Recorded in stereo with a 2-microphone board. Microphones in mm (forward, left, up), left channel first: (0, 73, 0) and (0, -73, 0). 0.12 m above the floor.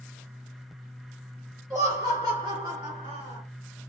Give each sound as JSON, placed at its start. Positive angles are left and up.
{"t": 1.7, "sound": "laughter", "side_deg": -25, "distance_m": 1.7}